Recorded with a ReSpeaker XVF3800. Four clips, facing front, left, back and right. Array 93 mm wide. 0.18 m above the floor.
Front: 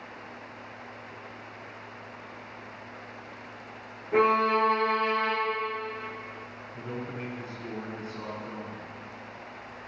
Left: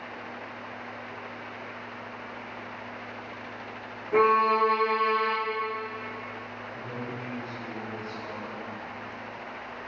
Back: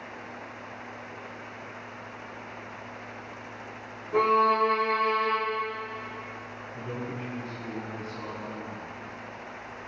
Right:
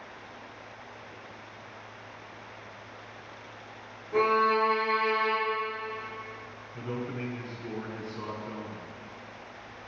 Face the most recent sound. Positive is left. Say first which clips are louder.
# right 3 dB, back 1 dB
turn(degrees=-65)